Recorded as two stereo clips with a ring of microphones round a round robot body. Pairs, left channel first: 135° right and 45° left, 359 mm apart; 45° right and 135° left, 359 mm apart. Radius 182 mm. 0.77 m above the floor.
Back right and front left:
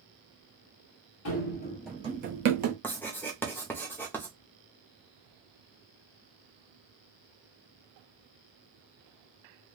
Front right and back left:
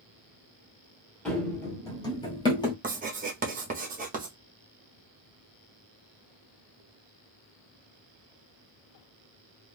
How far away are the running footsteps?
About 0.9 m.